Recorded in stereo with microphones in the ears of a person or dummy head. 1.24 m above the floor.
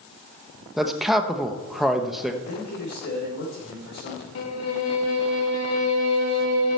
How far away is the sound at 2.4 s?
About 3.5 m.